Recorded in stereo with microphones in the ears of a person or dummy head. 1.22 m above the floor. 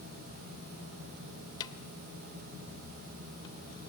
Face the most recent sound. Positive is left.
turn(degrees=25)  # may be behind; listen again after turning